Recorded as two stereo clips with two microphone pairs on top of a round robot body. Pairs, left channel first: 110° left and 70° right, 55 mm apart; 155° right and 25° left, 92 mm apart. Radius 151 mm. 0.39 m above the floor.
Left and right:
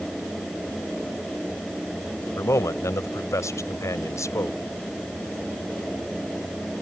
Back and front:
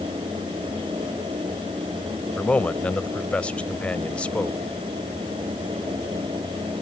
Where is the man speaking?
130° left.